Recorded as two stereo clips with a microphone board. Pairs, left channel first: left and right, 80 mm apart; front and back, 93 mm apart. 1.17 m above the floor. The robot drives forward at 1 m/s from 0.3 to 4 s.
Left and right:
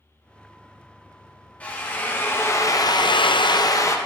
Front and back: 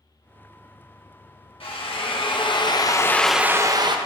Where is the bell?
I don't hear a bell.